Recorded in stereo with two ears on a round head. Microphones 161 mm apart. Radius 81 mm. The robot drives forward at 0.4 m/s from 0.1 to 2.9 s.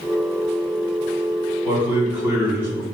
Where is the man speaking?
10° right (ahead or behind), 1.4 m.